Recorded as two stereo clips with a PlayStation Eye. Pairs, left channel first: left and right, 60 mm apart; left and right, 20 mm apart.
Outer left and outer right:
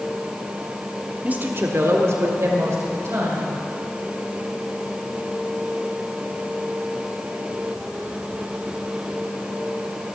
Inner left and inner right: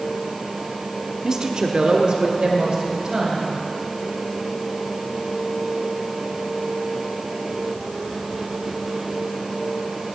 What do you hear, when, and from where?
1.2 s a woman speaking: 25° right (ahead or behind), 0.9 m; by 3.5 s 50° right (ahead or behind), 3.5 m